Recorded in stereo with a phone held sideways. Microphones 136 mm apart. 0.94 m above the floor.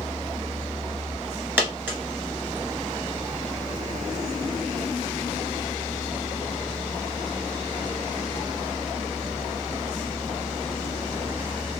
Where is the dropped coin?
15° right (ahead or behind), 1.1 m.